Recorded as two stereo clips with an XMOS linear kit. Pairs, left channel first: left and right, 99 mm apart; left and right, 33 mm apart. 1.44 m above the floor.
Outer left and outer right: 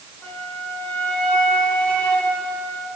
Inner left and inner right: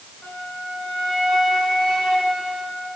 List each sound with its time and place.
0.2 s a flute: 20° left (ahead or behind), 3.5 m